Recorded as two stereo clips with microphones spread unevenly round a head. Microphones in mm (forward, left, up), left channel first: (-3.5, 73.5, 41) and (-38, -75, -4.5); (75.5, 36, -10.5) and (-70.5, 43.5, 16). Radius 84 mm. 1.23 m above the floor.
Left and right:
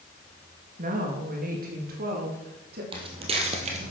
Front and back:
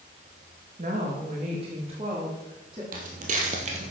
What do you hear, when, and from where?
0.8 s a woman speaking: 130° right, 2 m; by 2.8 s 115° right, 3 m
2.9 s footsteps: 165° right, 2.5 m; by 3.9 s 150° right, 2 m